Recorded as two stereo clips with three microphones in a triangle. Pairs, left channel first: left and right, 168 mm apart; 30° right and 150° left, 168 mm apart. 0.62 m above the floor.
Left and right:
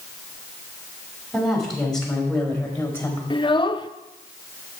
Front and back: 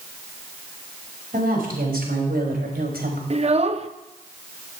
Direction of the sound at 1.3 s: Straight behind.